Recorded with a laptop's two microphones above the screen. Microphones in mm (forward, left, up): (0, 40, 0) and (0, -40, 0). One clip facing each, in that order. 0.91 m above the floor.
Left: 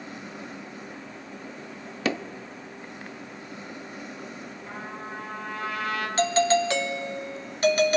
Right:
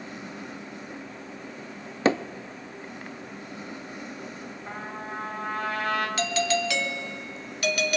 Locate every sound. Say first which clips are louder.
2.0 s hammering: right 5 dB; 30° right (ahead or behind), 0.7 m
4.7 s a trumpet: right 2 dB; 40° right (ahead or behind), 3 m
6.2 s a doorbell: left 4 dB; 35° left (ahead or behind), 1.2 m